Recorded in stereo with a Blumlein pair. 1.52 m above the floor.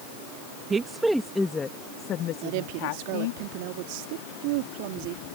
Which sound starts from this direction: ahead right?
A woman speaking, at 2.4 s.